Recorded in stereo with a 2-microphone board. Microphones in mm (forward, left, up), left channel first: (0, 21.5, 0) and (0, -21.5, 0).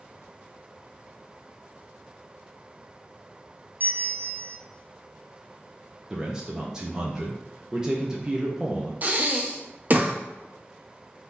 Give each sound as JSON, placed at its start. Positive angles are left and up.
{"t": 3.8, "sound": "a bell", "side_deg": -45, "distance_m": 0.6}
{"t": 6.1, "sound": "a man speaking", "side_deg": -15, "distance_m": 0.7}
{"t": 9.0, "sound": "breathing", "side_deg": -40, "distance_m": 0.6}